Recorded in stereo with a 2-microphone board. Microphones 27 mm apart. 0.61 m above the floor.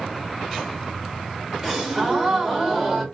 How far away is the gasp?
About 2 m.